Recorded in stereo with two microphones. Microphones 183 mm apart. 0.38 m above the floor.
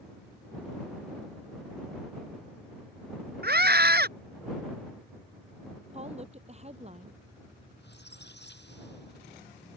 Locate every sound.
3.4 s a scream: 60° right (ahead or behind)
5.9 s a woman speaking: 35° right (ahead or behind)
7.8 s a squeak: 70° left (ahead or behind)